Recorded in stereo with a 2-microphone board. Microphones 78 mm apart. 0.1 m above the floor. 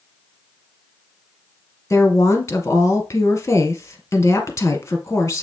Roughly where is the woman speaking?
Left.